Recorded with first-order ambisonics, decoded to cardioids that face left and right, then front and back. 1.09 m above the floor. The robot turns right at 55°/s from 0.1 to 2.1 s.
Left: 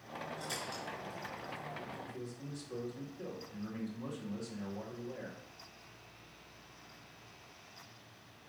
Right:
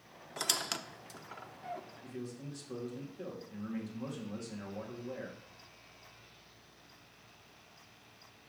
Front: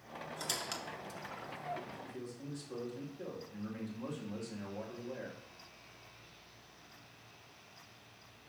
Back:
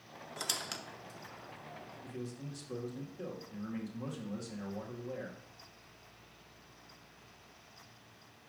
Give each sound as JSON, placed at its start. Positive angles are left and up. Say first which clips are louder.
{"t": 0.4, "sound": "a squeak", "louder": "right 10 dB, back 2 dB", "azimuth_deg": -115, "distance_m": 0.5}
{"t": 2.0, "sound": "a man speaking", "louder": "right 1 dB, back 1 dB", "azimuth_deg": -150, "distance_m": 2.0}